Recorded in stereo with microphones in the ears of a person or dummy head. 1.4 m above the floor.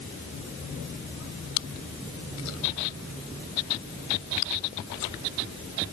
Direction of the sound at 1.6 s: 90° left.